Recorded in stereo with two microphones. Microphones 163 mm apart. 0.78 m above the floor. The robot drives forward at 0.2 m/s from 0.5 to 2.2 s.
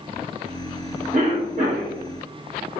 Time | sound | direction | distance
1.1 | a cough | 55° right (ahead or behind) | 1.3 m